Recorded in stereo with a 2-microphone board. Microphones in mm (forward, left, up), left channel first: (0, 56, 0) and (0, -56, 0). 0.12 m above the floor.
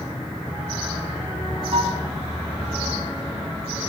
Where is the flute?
65° right (ahead or behind), 3.5 m.